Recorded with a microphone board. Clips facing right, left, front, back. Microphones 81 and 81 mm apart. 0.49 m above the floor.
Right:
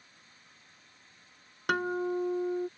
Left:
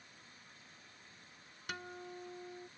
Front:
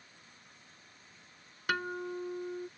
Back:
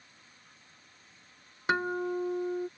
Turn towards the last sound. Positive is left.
turn(degrees=-115)